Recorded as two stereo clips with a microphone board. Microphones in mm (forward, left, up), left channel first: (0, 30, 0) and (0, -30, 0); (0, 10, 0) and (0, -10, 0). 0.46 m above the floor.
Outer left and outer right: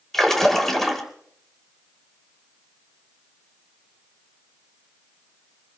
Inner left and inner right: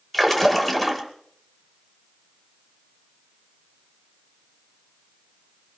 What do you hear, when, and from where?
0.1 s a splash: 5° left (ahead or behind), 2.5 m